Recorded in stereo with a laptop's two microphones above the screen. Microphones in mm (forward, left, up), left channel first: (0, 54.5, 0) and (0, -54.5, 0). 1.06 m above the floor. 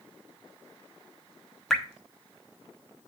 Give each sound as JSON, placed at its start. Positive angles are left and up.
{"t": 1.7, "sound": "dripping", "side_deg": 5, "distance_m": 1.0}